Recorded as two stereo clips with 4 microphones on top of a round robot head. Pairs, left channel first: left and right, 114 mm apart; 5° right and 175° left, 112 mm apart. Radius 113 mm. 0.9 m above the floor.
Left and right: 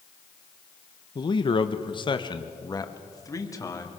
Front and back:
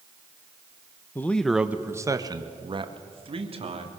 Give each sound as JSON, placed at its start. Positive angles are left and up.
{"t": 1.1, "sound": "a man speaking", "azimuth_deg": 60, "distance_m": 1.1}